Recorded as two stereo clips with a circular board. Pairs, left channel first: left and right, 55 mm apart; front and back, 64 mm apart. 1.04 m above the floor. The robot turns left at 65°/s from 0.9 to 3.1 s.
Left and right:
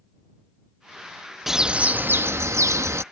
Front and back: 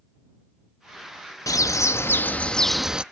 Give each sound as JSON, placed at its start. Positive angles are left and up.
{"t": 1.5, "sound": "a bird", "azimuth_deg": -5}